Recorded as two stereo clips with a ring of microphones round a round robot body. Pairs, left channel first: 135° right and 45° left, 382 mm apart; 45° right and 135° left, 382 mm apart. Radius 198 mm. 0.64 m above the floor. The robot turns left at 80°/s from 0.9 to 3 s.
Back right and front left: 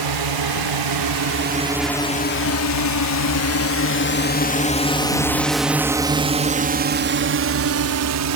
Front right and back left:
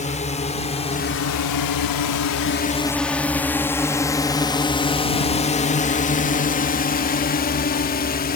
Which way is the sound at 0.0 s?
25° left.